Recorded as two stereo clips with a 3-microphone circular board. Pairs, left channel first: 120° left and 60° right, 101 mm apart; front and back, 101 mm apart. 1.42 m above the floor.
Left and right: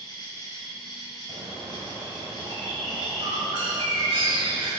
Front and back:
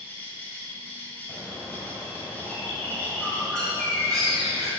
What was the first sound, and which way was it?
An insect, 70° left.